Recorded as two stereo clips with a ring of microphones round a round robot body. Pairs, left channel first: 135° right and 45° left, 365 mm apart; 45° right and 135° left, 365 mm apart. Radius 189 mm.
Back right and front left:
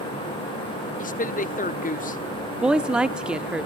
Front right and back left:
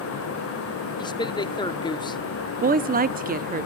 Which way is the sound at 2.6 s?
130° left.